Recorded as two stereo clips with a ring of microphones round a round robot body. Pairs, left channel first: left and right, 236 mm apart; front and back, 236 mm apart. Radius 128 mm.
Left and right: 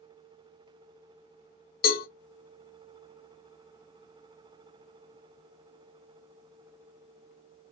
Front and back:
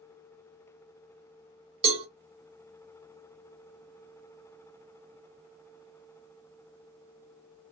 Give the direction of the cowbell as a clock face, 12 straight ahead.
8 o'clock.